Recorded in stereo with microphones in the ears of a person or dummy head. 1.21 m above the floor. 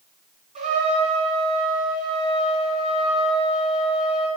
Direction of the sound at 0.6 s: 40° right (ahead or behind).